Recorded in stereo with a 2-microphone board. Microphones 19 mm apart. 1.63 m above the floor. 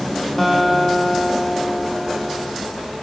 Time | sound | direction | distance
0.4 | a guitar | 15° left (ahead or behind) | 1.8 m